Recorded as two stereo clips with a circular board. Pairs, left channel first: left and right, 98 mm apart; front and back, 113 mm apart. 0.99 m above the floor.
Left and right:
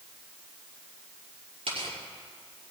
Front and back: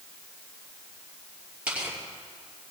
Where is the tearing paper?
100° right, 6 m.